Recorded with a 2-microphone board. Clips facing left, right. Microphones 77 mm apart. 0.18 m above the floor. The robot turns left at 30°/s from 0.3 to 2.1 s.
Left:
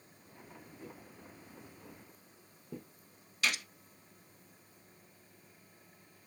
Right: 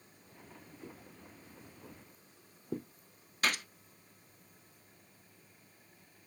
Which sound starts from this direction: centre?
Footsteps, at 0.8 s.